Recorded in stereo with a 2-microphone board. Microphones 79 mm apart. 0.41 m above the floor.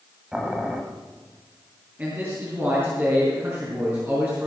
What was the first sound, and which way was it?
Boiling, 5° right (ahead or behind).